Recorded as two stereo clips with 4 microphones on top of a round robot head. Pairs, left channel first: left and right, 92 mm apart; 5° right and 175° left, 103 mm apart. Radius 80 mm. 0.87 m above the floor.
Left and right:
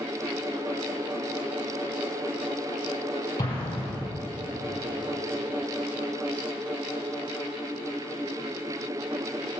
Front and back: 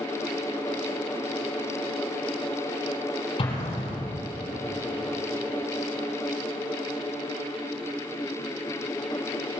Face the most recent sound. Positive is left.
turn(degrees=30)